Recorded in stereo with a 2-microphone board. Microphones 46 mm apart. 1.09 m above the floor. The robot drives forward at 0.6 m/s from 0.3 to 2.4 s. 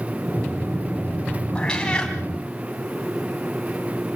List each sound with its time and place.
1.6 s a cat meowing: 20° left (ahead or behind), 3.5 m